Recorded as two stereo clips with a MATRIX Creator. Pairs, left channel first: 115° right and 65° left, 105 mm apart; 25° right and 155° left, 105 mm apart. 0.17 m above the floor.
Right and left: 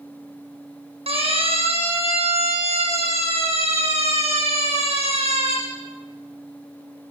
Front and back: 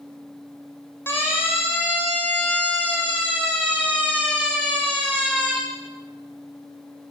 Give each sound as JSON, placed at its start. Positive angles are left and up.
{"t": 1.1, "sound": "a siren", "azimuth_deg": 45, "distance_m": 8.0}